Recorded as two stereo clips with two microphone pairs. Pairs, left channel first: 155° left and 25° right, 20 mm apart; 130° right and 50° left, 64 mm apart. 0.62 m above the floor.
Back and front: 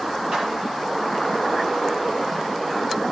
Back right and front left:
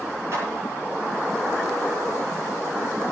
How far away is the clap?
About 9 m.